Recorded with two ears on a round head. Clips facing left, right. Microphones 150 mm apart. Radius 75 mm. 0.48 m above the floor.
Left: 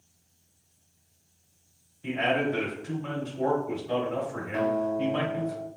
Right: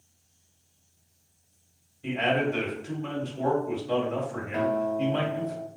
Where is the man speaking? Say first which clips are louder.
Right 1 dB; 25° right (ahead or behind), 2.5 m.